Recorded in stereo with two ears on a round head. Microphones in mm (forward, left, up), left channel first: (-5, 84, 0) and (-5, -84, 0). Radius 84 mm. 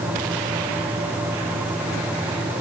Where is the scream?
I don't hear a scream.